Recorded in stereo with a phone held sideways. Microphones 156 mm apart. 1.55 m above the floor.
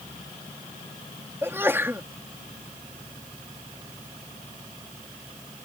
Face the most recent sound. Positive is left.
turn(degrees=-15)  # may be behind; listen again after turning